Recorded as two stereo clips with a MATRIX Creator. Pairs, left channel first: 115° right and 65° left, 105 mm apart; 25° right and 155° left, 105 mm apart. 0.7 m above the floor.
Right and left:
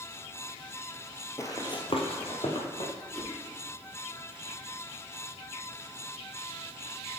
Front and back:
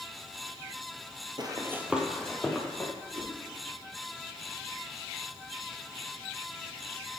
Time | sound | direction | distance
1.4 | running footsteps | 170° right | 1.0 m
3.1 | a whoosh | 155° left | 4 m